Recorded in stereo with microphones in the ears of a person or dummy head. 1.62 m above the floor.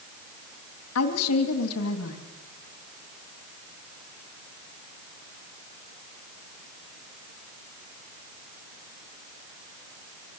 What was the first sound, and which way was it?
A woman speaking, 85° left.